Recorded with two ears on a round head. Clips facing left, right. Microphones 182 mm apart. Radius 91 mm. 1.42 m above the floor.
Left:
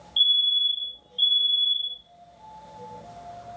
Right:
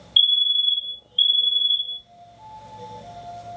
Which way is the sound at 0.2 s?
25° right (ahead or behind).